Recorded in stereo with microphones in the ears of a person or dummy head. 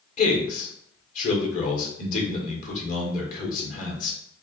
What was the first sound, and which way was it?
A man speaking, 45° left (ahead or behind).